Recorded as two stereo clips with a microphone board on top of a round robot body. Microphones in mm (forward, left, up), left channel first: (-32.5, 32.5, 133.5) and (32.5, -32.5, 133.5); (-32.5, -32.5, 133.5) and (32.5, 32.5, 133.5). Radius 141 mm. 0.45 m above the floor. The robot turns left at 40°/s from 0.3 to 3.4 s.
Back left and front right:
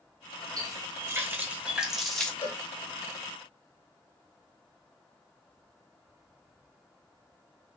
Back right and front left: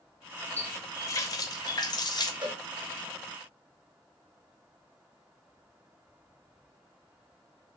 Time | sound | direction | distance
0.6 | a running tap | 75° right | 0.7 m
2.4 | a cowbell | 80° left | 1.0 m